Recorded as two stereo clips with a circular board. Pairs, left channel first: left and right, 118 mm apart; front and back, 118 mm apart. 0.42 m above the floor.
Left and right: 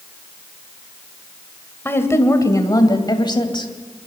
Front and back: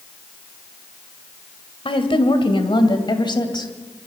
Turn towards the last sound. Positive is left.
turn(degrees=45)